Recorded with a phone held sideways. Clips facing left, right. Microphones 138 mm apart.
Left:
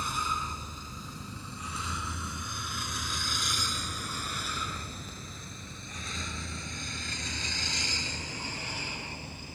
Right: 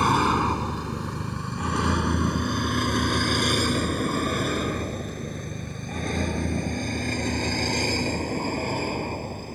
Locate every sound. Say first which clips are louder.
0.0 s a vehicle: right 14 dB; 75° right (ahead or behind); by 9.6 s 50° right (ahead or behind)